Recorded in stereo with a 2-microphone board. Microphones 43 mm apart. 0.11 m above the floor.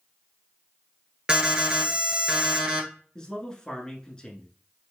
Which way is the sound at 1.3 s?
20° right (ahead or behind).